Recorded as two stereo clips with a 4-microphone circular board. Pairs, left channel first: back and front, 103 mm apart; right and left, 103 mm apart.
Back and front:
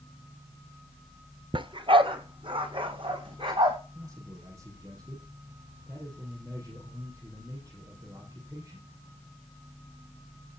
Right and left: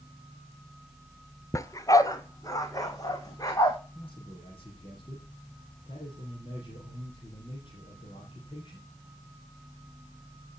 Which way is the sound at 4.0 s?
55° right.